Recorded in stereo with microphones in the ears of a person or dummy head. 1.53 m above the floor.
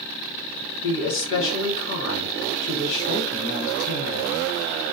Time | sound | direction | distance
0.8 | a woman speaking | 70° left (ahead or behind) | 1.3 m